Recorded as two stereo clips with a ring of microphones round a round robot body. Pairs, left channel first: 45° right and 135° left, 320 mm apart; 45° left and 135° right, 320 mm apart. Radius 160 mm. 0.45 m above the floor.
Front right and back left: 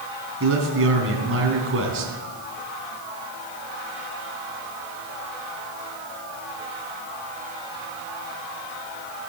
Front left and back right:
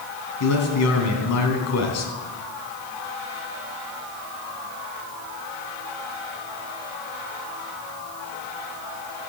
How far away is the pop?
I don't hear a pop.